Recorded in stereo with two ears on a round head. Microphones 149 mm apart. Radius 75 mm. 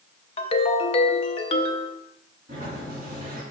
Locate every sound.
0.4 s a ringtone: 35° left (ahead or behind), 0.7 m
2.5 s a sliding door: 55° right (ahead or behind), 3 m